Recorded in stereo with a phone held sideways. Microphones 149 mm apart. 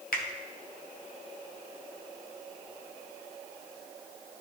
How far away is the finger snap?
About 1.1 m.